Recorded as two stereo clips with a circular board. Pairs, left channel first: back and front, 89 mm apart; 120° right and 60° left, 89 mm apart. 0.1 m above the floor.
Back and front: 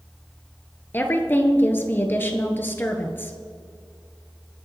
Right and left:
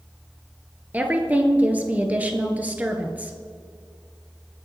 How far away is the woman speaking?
About 1.6 m.